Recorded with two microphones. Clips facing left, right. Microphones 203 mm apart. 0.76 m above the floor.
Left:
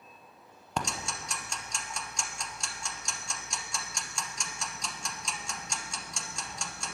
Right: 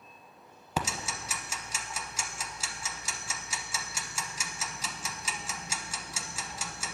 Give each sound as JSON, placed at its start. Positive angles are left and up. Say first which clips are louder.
{"t": 0.8, "sound": "ticking", "louder": "right 1 dB", "side_deg": -5, "distance_m": 0.6}